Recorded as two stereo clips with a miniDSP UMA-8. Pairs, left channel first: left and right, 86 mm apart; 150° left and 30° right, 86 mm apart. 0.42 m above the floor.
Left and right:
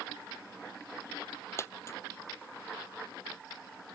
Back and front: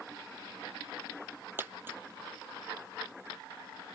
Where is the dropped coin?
35° left.